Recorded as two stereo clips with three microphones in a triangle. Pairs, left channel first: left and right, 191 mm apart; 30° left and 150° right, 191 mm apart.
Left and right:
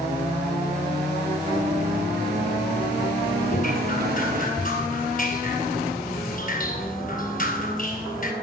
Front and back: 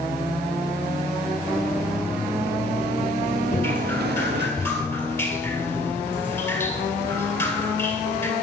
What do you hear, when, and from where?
1.5 s running footsteps: 55° right, 2 m; by 4.5 s 130° right, 1.8 m
3.5 s dripping: 100° left, 1.9 m